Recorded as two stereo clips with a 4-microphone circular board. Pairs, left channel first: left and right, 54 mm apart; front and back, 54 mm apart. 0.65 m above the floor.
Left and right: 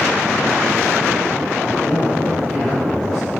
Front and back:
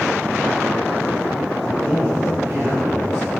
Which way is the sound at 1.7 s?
170° left.